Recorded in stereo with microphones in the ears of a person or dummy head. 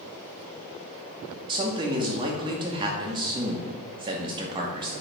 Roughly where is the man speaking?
Right.